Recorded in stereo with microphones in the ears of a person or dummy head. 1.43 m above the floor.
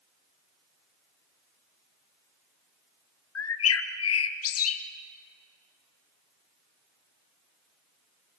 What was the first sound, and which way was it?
A bird, 70° left (ahead or behind).